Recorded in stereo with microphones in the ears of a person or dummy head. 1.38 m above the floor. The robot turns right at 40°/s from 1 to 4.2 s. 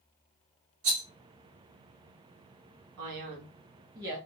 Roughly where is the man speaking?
Ahead right.